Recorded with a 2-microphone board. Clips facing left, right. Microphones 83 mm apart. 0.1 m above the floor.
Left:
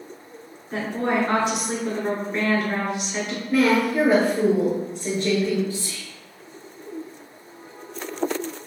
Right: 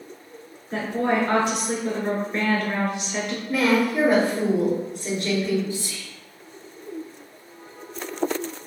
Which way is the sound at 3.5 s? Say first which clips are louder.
Left 2 dB; 20° left (ahead or behind).